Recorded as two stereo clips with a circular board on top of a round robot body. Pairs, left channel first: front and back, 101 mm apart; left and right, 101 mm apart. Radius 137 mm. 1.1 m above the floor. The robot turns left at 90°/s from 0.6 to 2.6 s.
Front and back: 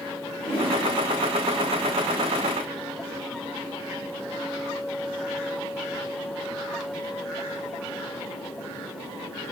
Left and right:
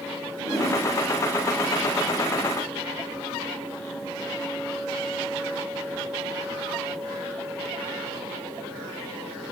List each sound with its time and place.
0.4 s a whoosh: 35° left, 1.7 m; by 0.8 s 20° left, 1.7 m